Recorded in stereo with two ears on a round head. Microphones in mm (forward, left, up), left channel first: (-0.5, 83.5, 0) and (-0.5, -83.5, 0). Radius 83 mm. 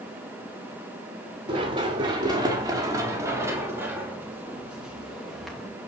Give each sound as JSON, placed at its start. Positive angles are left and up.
{"t": 1.5, "sound": "running footsteps", "side_deg": -25, "distance_m": 5.0}